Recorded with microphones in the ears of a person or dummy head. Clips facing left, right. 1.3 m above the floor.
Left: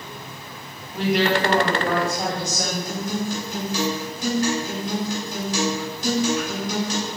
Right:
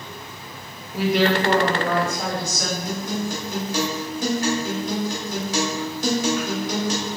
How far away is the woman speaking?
About 0.7 m.